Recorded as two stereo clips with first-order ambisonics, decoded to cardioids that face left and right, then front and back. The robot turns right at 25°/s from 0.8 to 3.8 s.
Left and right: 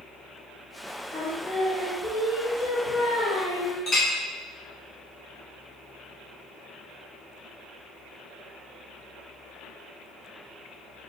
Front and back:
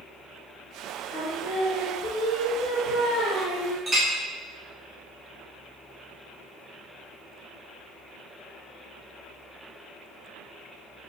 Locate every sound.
1.1 s singing: 5° left, 1.0 m; by 3.8 s 70° left, 1.0 m
3.9 s a clink: 125° left, 0.5 m